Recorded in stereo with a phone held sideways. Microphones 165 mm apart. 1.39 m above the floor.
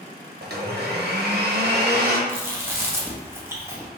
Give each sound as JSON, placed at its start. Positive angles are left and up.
{"t": 0.4, "sound": "a blender", "side_deg": -75, "distance_m": 0.9}
{"t": 2.3, "sound": "chewing", "side_deg": -15, "distance_m": 0.8}